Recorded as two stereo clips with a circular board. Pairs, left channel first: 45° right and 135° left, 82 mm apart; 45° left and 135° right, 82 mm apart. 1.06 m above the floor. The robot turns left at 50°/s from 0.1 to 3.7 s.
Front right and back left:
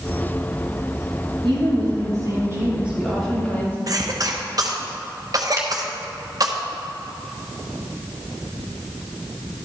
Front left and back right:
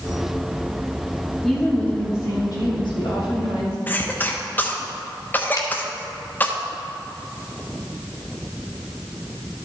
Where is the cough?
105° left, 1.2 m.